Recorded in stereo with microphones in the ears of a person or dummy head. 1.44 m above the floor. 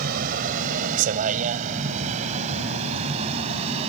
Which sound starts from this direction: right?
A vehicle, at 0.0 s.